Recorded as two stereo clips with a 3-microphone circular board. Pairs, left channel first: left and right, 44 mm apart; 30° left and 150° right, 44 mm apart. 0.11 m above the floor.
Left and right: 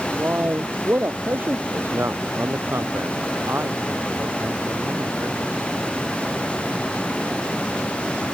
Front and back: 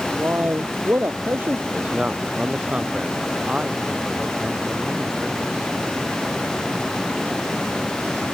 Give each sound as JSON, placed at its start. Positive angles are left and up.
{"t": 0.2, "sound": "a man speaking", "azimuth_deg": -120}
{"t": 1.7, "sound": "a man speaking", "azimuth_deg": -90}